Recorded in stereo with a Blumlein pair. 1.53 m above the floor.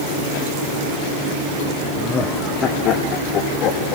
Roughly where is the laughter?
Ahead.